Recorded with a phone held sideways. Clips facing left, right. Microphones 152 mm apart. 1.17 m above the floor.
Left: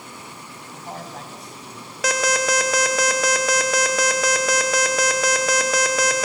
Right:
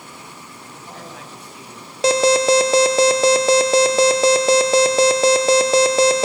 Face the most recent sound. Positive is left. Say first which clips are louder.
# right 8 dB
turn(degrees=-30)  # may be behind; listen again after turning